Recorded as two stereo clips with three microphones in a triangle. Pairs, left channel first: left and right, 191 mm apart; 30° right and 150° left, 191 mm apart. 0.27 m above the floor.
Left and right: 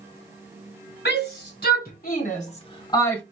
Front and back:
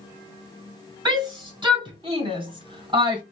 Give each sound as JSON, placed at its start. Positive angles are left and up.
{"t": 1.1, "sound": "a shout", "azimuth_deg": 85, "distance_m": 3.0}